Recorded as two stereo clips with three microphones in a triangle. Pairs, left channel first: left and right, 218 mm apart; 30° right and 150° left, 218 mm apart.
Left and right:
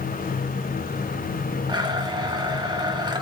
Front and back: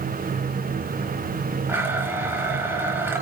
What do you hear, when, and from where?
1.7 s a blender: 140° right, 1.4 m